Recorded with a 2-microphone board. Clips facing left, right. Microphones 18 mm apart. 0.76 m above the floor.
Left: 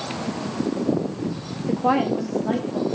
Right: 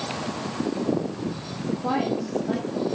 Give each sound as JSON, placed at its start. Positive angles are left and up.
{"t": 1.7, "sound": "a woman speaking", "side_deg": 40, "distance_m": 0.6}